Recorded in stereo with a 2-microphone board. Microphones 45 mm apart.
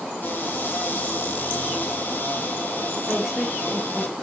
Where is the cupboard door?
40° left (ahead or behind), 4.5 m.